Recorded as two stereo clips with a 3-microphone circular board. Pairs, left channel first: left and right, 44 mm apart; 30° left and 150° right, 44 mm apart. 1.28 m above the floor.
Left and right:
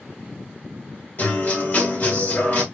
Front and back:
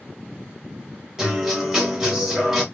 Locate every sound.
1.2 s a guitar: 130° left, 1.4 m